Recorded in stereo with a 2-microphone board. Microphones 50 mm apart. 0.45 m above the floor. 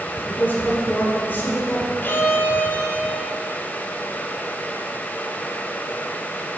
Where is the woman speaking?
40° left (ahead or behind), 1.3 m.